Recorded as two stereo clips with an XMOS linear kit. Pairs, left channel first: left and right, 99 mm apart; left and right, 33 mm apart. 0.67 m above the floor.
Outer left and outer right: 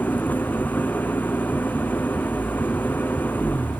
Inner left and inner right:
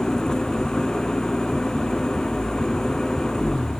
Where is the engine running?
15° left (ahead or behind).